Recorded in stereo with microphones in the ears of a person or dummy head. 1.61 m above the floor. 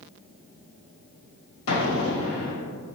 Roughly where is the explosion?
Left.